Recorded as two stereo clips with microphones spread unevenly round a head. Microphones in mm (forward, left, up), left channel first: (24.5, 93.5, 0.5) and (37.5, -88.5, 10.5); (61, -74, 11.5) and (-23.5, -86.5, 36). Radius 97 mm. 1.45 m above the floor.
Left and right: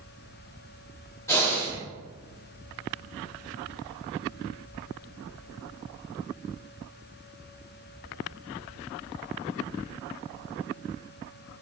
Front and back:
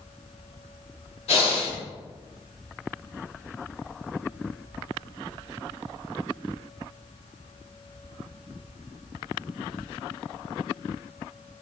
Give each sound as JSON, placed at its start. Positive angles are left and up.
{"t": 1.3, "sound": "breathing", "azimuth_deg": 20, "distance_m": 2.0}